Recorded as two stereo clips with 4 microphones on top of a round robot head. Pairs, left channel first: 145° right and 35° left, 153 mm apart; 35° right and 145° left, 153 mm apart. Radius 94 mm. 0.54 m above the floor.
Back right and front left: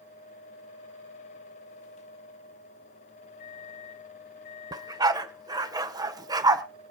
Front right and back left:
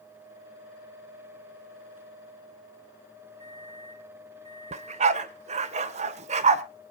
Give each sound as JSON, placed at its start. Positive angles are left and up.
{"t": 3.4, "sound": "a microwave", "azimuth_deg": -150, "distance_m": 4.0}
{"t": 4.7, "sound": "a dog barking", "azimuth_deg": 100, "distance_m": 0.9}